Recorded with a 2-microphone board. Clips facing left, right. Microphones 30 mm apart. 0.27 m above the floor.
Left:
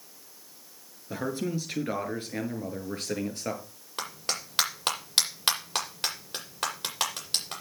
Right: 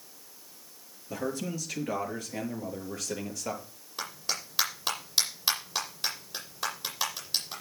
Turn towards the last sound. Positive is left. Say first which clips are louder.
# left 1 dB
turn(degrees=55)  # may be behind; listen again after turning